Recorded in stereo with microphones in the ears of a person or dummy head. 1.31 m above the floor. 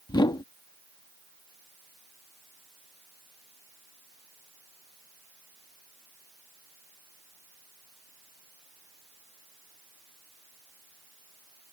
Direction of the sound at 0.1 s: 20° left (ahead or behind).